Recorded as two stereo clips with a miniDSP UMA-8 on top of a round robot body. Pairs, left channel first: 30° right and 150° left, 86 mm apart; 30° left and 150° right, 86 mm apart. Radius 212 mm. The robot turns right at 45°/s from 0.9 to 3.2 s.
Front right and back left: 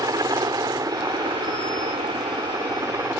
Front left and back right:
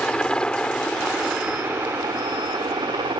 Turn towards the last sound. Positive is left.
turn(degrees=-150)